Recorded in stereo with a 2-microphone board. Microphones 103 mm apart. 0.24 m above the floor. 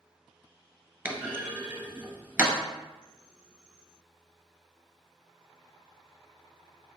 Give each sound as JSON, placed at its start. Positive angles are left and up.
{"t": 1.1, "sound": "a clunk", "side_deg": -20, "distance_m": 0.7}